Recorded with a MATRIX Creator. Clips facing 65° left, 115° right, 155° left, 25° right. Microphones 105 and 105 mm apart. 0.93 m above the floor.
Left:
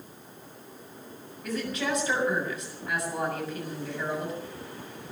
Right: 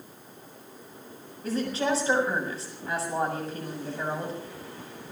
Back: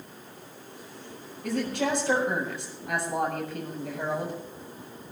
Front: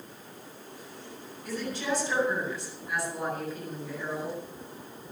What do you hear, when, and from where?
1.4 s a woman speaking: 175° right, 7 m